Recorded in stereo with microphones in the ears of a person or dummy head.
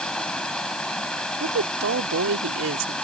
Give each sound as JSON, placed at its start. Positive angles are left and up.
{"t": 0.0, "sound": "running water", "side_deg": 5}
{"t": 1.4, "sound": "a woman speaking", "side_deg": -80}